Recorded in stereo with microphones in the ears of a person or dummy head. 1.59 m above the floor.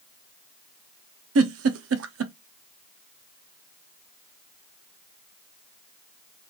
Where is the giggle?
70° right (ahead or behind), 0.5 m.